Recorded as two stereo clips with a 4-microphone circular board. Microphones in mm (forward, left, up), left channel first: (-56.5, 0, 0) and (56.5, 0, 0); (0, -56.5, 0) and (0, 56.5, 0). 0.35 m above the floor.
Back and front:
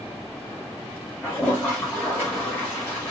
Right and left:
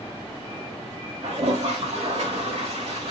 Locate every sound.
1.2 s a toilet flushing: 105° left, 4.5 m